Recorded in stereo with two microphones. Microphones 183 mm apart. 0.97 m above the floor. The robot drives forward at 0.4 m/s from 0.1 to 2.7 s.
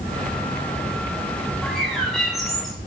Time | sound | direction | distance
1.6 | a bird | centre (ahead or behind) | 2.5 m